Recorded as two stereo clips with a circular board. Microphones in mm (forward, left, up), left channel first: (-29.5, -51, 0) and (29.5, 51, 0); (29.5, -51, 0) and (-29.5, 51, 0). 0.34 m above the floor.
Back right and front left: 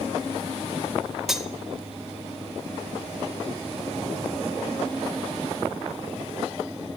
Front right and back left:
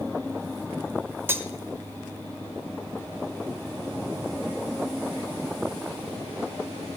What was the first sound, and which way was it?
Cutlery clinking, 140° left.